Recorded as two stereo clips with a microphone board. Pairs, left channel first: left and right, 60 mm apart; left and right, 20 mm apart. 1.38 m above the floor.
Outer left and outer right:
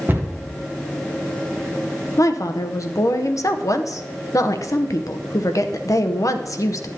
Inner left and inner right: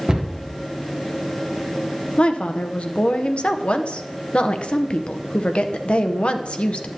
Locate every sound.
0.1 s a cupboard door: 35° right (ahead or behind), 0.9 m
2.2 s a woman speaking: 65° left (ahead or behind), 0.7 m